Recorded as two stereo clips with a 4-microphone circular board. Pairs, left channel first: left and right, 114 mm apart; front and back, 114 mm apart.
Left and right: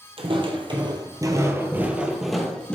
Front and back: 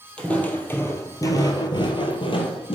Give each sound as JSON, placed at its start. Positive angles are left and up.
{"t": 0.2, "sound": "footsteps", "azimuth_deg": -80, "distance_m": 1.4}